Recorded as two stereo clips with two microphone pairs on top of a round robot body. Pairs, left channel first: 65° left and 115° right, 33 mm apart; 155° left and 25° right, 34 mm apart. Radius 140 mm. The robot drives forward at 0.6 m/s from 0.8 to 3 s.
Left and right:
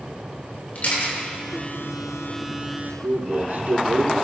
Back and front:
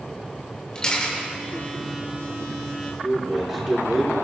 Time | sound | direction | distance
0.8 | a camera shutter | 85° left | 3.5 m
3.0 | a man speaking | 110° right | 2.5 m